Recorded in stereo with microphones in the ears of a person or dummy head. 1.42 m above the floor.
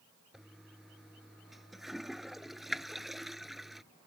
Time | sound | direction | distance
0.3 | a toilet flushing | centre (ahead or behind) | ?